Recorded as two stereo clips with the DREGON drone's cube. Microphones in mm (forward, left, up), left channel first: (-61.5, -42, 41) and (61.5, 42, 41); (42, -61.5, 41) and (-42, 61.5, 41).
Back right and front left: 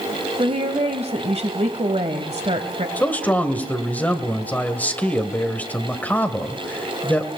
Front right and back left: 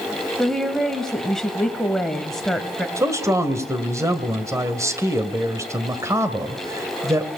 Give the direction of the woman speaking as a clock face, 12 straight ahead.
11 o'clock.